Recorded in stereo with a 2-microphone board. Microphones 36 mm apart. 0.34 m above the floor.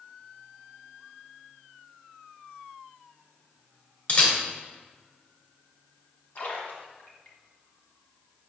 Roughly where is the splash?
Left.